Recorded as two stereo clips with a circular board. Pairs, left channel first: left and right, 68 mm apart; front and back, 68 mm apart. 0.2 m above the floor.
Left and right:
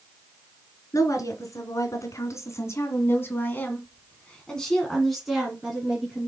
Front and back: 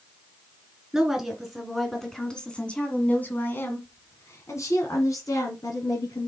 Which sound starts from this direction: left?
A woman speaking, at 0.9 s.